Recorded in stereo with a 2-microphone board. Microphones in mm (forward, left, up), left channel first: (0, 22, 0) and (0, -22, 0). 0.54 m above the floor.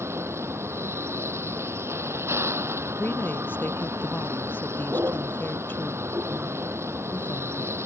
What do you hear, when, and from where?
0.0 s a vehicle: 75° right (ahead or behind)
3.0 s a woman speaking: 45° left (ahead or behind)